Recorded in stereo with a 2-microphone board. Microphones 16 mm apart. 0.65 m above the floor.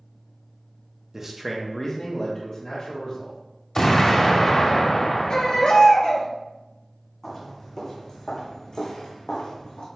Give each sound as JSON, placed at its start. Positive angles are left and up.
{"t": 1.1, "sound": "a man speaking", "side_deg": -25, "distance_m": 0.7}
{"t": 3.8, "sound": "an explosion", "side_deg": 40, "distance_m": 0.9}
{"t": 5.3, "sound": "a baby crying", "side_deg": 55, "distance_m": 0.9}
{"t": 7.2, "sound": "footsteps", "side_deg": 15, "distance_m": 2.0}